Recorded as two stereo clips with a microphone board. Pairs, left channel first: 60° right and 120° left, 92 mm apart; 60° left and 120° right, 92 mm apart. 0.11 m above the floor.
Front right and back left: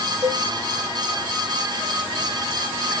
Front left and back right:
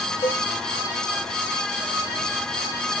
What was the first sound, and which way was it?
A cowbell, 80° left.